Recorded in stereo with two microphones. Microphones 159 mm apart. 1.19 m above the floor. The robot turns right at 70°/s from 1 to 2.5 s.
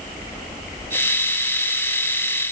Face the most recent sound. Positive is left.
No sound to turn to.